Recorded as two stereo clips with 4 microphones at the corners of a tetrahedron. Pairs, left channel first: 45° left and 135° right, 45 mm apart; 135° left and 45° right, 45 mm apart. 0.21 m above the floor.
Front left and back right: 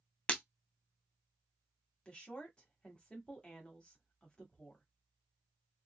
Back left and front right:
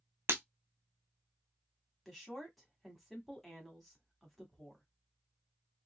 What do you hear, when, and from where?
0.3 s breaking glass: 20° right, 0.8 m
2.0 s a woman speaking: 45° left, 0.9 m